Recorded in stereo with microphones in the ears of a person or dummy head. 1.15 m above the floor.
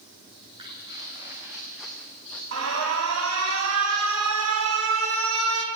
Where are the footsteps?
25° right (ahead or behind), 4 m; by 2.4 s 10° left (ahead or behind), 3.5 m.